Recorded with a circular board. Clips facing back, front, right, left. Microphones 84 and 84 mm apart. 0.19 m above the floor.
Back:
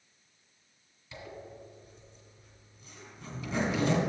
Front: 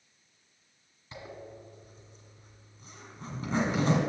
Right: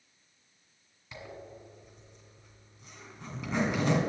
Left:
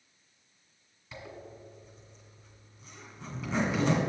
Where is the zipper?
10° right, 1.8 m.